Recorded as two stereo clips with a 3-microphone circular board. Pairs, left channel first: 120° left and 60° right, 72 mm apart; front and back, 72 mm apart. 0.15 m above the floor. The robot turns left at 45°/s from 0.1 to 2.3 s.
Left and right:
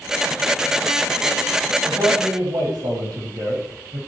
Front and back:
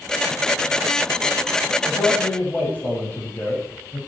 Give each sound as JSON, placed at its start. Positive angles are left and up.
{"t": 1.8, "sound": "a man speaking", "azimuth_deg": -45, "distance_m": 5.5}